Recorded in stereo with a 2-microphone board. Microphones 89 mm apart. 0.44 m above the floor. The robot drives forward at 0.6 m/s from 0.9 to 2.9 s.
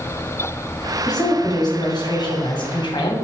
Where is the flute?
No flute in this recording.